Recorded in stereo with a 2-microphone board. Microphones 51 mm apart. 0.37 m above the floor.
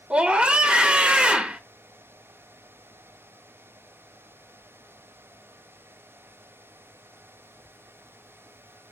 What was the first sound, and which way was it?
A scream, 20° right (ahead or behind).